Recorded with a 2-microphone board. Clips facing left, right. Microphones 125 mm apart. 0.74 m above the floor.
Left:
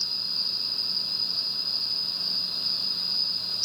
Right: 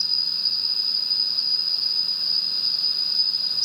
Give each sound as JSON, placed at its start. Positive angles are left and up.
{"t": 0.0, "sound": "an insect", "side_deg": -75, "distance_m": 5.5}